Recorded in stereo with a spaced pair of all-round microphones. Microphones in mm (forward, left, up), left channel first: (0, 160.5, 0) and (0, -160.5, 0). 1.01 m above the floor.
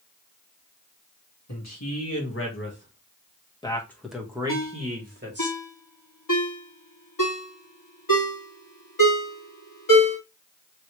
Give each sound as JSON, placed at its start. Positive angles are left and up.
{"t": 1.5, "sound": "a man speaking", "side_deg": 55, "distance_m": 1.6}
{"t": 4.5, "sound": "a ringtone", "side_deg": 80, "distance_m": 1.3}